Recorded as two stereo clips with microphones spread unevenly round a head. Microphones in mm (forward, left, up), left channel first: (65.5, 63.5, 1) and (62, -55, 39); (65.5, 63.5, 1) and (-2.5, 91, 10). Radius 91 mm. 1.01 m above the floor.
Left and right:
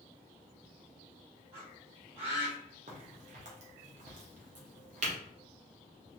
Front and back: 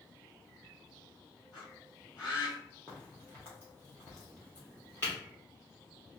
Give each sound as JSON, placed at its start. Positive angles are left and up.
{"t": 1.5, "sound": "a bird", "azimuth_deg": -45, "distance_m": 1.6}
{"t": 2.9, "sound": "a crack", "azimuth_deg": -100, "distance_m": 0.7}